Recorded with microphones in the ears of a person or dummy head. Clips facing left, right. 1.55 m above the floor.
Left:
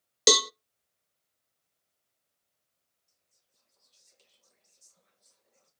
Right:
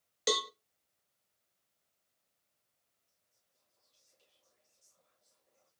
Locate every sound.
0.3 s a cowbell: 65° left (ahead or behind), 0.5 m
3.1 s whispering: 75° left (ahead or behind), 2.5 m